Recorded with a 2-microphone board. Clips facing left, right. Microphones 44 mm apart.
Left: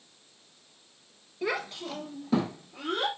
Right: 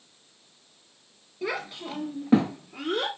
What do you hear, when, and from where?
1.4 s a child speaking: centre (ahead or behind), 1.1 m; by 3.1 s 55° right (ahead or behind), 1.6 m